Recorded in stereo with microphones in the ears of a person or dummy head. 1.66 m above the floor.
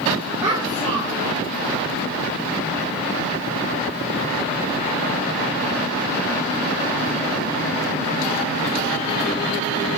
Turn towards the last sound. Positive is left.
turn(degrees=-25)  # may be behind; listen again after turning